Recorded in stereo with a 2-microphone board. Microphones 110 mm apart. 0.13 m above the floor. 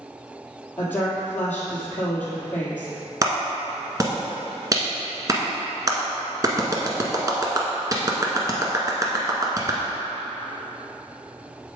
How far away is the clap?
About 1.3 m.